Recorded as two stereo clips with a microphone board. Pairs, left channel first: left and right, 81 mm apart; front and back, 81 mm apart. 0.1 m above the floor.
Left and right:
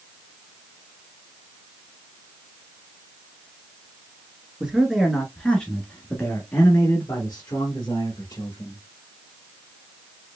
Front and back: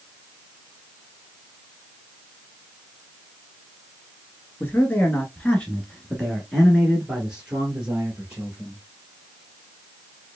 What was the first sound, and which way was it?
A man speaking, 20° right.